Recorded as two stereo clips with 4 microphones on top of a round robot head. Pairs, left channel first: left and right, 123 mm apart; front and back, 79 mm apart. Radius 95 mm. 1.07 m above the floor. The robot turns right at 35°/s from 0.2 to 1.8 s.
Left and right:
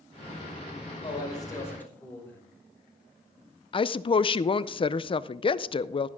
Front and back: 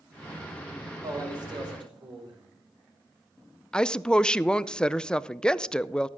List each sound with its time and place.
1.0 s a man speaking: 140° left, 5.5 m; by 2.4 s 165° left, 5.5 m
3.7 s a woman speaking: 75° left, 0.5 m